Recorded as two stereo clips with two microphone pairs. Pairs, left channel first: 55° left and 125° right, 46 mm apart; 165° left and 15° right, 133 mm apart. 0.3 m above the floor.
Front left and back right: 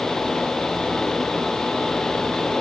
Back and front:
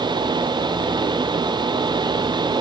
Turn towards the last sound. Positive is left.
No sound to turn to.